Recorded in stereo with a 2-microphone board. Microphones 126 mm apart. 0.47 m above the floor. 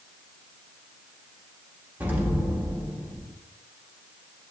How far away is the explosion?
About 0.7 m.